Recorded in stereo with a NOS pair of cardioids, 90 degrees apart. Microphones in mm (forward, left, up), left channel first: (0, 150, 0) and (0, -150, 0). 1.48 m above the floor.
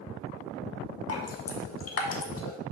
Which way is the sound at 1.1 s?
50° left.